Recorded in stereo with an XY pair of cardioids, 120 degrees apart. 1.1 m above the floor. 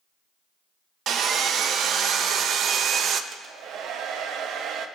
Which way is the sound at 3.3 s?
70° right.